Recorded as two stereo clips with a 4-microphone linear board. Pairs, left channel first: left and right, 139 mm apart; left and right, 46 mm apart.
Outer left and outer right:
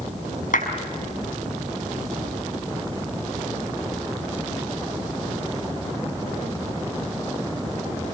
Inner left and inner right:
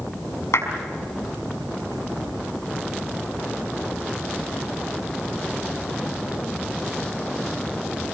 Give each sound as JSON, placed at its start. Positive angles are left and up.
{"t": 0.5, "sound": "a clap", "side_deg": 75, "distance_m": 5.5}